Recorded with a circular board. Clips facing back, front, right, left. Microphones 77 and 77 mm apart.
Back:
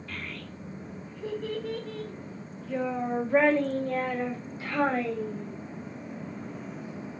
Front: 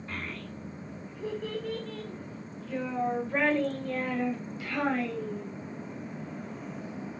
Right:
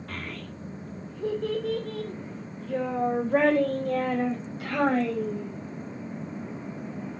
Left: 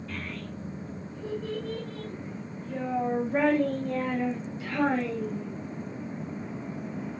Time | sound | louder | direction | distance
0.1 | a child speaking | front 1 dB, right 1 dB | 60° right | 1.8 m